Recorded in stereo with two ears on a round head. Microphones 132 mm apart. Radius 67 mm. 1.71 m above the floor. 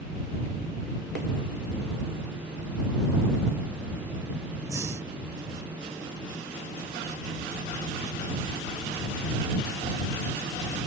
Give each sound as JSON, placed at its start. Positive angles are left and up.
{"t": 4.7, "sound": "breathing", "side_deg": -20}